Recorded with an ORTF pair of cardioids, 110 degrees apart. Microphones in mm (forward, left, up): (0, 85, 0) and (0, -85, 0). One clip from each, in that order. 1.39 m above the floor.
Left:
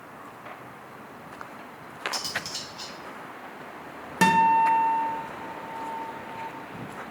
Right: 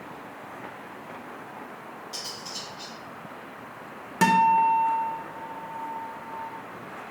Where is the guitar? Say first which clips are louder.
Even; 5° left, 0.8 m.